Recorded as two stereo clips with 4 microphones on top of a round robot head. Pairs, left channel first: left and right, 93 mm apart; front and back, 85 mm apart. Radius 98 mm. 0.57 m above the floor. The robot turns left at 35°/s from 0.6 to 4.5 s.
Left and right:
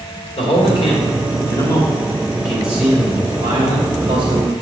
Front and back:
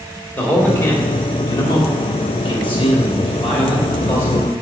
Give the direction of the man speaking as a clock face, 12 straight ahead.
10 o'clock.